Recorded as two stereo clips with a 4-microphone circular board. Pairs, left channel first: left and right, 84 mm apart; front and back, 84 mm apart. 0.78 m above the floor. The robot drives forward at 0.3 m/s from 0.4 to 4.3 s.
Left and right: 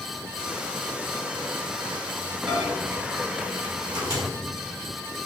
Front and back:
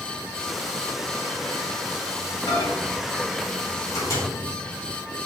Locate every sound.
2.5 s a microwave: 35° right, 1.9 m; by 4.2 s 50° right, 1.6 m